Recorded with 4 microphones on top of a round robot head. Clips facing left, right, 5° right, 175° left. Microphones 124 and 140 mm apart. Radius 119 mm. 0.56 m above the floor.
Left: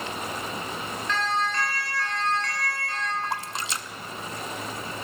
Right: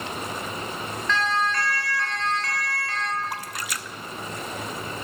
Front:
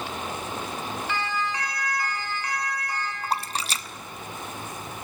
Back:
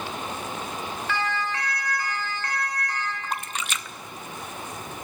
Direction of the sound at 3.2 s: 35° left.